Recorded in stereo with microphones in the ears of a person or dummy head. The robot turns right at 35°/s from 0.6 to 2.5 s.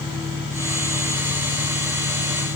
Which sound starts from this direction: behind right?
An engine running, at 0.0 s.